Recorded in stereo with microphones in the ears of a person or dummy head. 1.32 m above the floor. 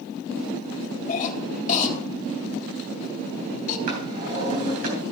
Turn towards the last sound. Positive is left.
turn(degrees=-50)  # may be behind; listen again after turning